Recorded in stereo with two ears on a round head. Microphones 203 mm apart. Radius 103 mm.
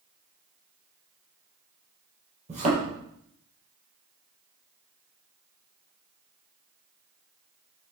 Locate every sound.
2.5 s a thud: 35° right (ahead or behind), 6.5 m